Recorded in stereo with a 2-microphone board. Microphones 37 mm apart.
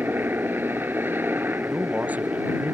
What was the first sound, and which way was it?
A helicopter, 65° right (ahead or behind).